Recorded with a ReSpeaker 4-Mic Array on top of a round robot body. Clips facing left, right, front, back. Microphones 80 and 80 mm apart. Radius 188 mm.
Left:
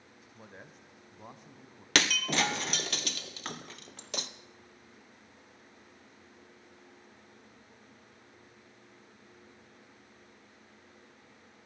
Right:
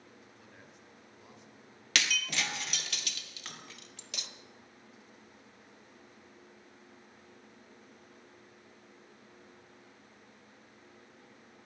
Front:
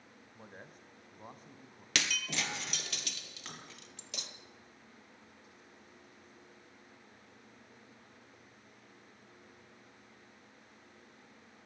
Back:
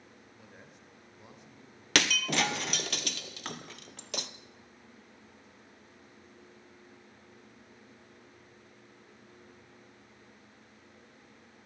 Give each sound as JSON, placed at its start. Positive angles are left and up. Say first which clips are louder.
{"t": 0.3, "sound": "a man speaking", "louder": "left 4 dB, front 4 dB", "azimuth_deg": 45, "distance_m": 3.5}
{"t": 1.9, "sound": "breaking glass", "louder": "left 5 dB, back 8 dB", "azimuth_deg": 140, "distance_m": 1.3}